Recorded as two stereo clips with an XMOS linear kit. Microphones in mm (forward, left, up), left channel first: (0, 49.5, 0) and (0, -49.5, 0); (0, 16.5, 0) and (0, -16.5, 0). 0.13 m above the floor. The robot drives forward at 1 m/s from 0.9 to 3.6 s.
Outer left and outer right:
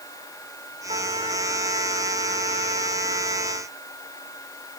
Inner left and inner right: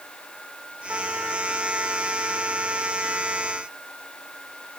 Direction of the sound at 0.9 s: 60° right (ahead or behind).